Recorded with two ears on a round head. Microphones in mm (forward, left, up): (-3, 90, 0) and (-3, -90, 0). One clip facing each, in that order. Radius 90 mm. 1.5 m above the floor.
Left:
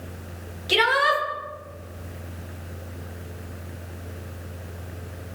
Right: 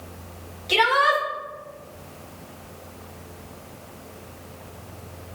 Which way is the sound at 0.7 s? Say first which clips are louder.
Right 1 dB; 15° left (ahead or behind).